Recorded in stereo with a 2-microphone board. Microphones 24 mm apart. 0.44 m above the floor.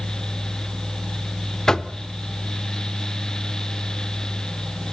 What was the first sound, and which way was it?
Knocking, 25° left (ahead or behind).